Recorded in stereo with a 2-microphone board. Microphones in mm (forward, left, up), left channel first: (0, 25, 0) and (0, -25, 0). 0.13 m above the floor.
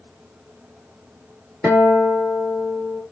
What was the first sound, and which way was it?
A guitar, 5° right (ahead or behind).